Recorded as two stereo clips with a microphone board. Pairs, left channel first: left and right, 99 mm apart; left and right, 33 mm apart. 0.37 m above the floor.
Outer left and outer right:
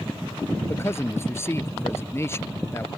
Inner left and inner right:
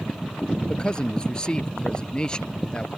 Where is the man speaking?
25° left (ahead or behind).